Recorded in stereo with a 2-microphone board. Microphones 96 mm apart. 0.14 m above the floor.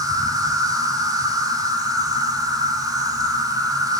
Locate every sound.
0.0 s an insect: 40° right (ahead or behind), 2.5 m